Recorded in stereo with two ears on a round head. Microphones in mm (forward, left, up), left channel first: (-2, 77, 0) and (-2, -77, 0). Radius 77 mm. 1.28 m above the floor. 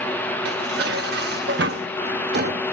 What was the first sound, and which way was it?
Dishes clattering, 65° right (ahead or behind).